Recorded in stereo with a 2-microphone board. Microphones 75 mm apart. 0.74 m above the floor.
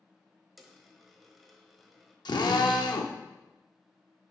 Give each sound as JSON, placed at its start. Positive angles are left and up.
{"t": 0.6, "sound": "a dropped coin", "side_deg": 0, "distance_m": 1.2}
{"t": 2.2, "sound": "a drill", "side_deg": 70, "distance_m": 0.8}